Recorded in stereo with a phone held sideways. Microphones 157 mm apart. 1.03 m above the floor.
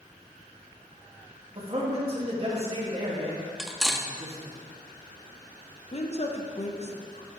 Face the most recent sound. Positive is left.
turn(degrees=45)  # may be behind; listen again after turning